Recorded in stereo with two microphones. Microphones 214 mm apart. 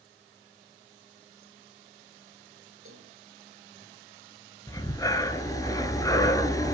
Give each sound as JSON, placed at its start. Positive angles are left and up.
{"t": 2.9, "sound": "a cowbell", "side_deg": -80, "distance_m": 4.5}
{"t": 4.7, "sound": "breathing", "side_deg": 15, "distance_m": 1.7}